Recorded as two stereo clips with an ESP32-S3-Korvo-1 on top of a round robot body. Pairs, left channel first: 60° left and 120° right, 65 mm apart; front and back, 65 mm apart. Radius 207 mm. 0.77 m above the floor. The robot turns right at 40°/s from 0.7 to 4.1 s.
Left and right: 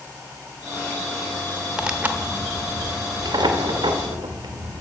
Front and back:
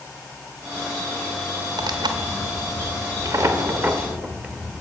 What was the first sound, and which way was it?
Tearing paper, 160° left.